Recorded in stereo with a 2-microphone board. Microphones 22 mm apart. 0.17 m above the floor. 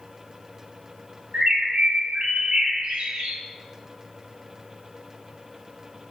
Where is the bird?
45° right (ahead or behind), 0.9 m.